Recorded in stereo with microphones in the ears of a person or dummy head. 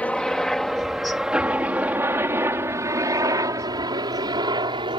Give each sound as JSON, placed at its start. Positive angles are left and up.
{"t": 0.0, "sound": "a helicopter", "side_deg": 5}